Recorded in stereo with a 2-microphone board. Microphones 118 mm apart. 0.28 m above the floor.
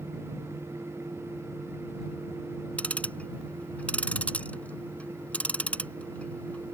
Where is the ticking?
10° left (ahead or behind).